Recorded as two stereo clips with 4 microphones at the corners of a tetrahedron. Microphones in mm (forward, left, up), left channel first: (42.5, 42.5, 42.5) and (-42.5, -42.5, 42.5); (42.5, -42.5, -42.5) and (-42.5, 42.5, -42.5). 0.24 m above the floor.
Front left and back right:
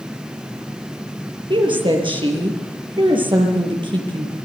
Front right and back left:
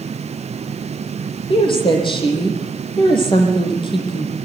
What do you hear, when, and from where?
1.5 s a woman speaking: 90° right, 6 m